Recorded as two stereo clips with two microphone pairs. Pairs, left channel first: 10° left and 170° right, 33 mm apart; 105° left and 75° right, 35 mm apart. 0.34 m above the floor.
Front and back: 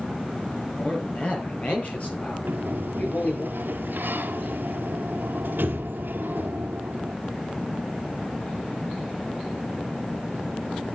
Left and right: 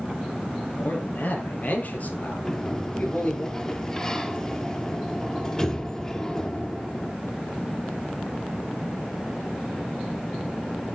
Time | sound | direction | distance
0.8 | a man speaking | 65° left | 7 m
2.5 | a sliding door | straight behind | 1.7 m